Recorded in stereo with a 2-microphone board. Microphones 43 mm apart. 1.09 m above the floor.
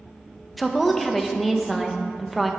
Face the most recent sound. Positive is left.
turn(degrees=0)  # may be behind; listen again after turning